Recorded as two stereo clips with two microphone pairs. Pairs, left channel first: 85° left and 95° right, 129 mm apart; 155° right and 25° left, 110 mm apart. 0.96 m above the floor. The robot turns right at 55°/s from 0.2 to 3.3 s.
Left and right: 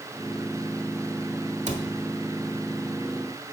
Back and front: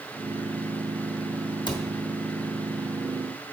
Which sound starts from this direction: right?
A cupboard door, at 1.7 s.